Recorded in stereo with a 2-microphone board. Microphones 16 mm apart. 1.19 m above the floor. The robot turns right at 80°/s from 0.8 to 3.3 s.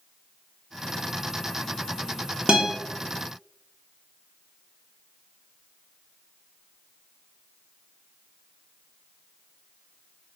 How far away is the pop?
I don't hear a pop.